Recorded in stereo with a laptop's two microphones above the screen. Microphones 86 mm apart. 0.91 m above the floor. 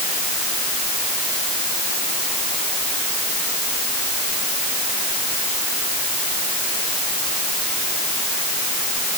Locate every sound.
Only background noise.